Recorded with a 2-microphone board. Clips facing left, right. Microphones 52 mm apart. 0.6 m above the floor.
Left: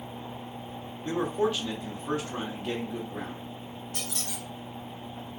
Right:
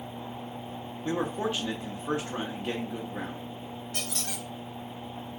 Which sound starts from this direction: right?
A squeak, at 3.9 s.